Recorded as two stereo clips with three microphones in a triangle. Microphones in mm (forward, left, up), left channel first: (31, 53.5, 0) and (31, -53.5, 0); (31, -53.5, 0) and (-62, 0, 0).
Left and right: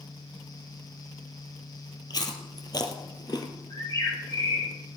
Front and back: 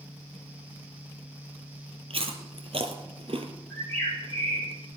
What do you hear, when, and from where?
2.1 s chewing: 135° left, 1.3 m
3.7 s a bird: 45° left, 7 m